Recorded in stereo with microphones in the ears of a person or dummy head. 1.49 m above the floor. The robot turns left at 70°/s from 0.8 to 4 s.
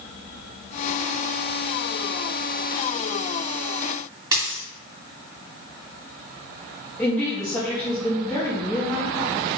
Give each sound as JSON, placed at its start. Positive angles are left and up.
{"t": 4.3, "sound": "a dropped coin", "side_deg": -25, "distance_m": 2.0}
{"t": 7.0, "sound": "a woman speaking", "side_deg": 5, "distance_m": 0.6}